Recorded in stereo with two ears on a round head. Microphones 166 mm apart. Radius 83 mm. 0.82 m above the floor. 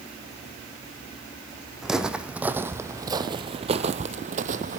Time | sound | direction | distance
1.8 | footsteps | 5° right (ahead or behind) | 1.6 m